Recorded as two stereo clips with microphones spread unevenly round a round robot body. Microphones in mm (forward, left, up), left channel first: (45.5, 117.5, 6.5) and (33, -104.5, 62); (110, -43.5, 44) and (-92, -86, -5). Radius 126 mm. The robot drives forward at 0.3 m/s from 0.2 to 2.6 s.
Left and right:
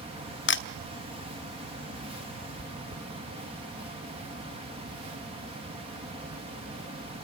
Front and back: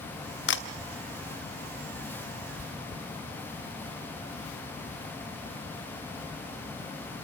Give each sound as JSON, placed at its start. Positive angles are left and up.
{"t": 0.5, "sound": "a camera shutter", "azimuth_deg": 60, "distance_m": 1.1}
{"t": 2.6, "sound": "chewing", "azimuth_deg": -40, "distance_m": 0.6}